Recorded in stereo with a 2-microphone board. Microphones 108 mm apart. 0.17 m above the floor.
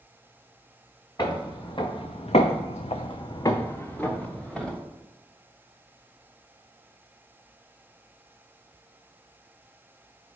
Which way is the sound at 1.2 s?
40° left (ahead or behind).